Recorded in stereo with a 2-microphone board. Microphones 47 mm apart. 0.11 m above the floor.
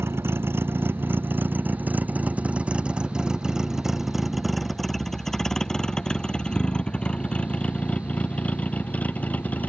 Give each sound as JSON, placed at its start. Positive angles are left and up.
{"t": 0.0, "sound": "a vehicle", "side_deg": -60}